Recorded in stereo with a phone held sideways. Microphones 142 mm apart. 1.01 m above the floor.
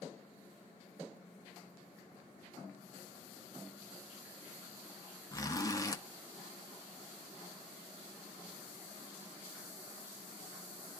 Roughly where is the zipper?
Left.